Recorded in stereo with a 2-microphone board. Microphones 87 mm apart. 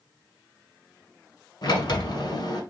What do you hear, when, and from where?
1.6 s a sliding door: 65° left (ahead or behind), 0.9 m